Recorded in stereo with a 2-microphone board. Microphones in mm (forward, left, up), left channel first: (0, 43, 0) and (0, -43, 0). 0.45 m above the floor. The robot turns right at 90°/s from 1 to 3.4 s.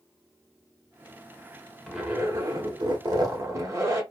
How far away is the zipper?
About 0.9 m.